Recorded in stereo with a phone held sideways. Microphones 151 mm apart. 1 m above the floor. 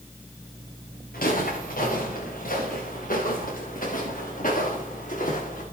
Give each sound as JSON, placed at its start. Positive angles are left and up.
{"t": 1.1, "sound": "footsteps", "side_deg": 75, "distance_m": 7.0}